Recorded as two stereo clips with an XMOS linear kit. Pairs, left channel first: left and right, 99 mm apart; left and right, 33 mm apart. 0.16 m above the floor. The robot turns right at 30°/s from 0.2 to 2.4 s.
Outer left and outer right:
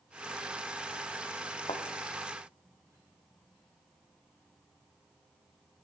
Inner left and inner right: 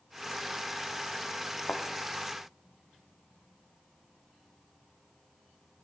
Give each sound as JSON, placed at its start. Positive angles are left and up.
{"t": 1.7, "sound": "a thud", "side_deg": 60, "distance_m": 1.7}